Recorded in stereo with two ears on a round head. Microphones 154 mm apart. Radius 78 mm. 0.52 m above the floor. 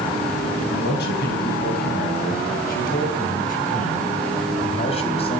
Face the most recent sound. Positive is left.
turn(degrees=35)  # may be behind; listen again after turning